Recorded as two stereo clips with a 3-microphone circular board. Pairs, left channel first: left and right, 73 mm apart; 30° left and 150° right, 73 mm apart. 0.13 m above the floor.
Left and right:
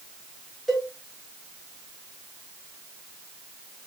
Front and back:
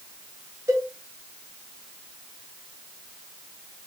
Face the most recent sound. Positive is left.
turn(degrees=175)